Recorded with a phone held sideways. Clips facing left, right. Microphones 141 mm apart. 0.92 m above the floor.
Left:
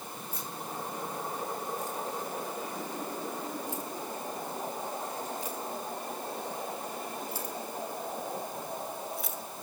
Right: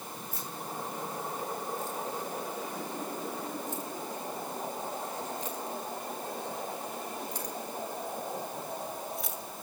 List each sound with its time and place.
0.3 s keys jangling: 15° left (ahead or behind), 10 m; by 9.4 s centre (ahead or behind), 4 m